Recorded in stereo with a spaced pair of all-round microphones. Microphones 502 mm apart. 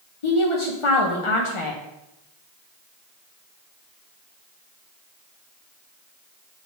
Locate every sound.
0.2 s a woman speaking: 70° left (ahead or behind), 1.1 m